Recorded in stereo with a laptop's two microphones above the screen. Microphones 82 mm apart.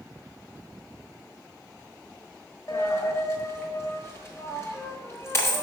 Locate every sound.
2.7 s a dropped coin: 35° left (ahead or behind), 1.1 m